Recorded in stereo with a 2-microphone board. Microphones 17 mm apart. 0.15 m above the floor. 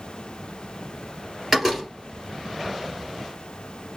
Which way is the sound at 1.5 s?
10° right (ahead or behind).